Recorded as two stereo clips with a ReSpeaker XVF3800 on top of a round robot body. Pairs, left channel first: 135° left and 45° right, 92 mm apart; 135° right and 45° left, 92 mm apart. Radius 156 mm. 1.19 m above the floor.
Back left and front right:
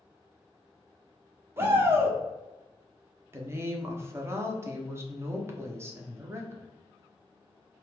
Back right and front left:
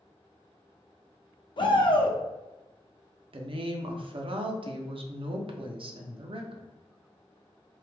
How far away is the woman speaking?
About 0.7 m.